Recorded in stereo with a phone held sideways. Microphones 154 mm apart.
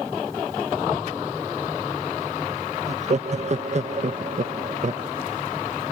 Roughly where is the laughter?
Right.